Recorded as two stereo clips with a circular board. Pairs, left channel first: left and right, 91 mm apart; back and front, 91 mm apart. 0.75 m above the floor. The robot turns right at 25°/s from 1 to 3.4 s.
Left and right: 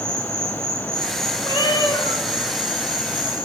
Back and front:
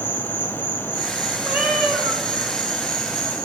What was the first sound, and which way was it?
An insect, 160° left.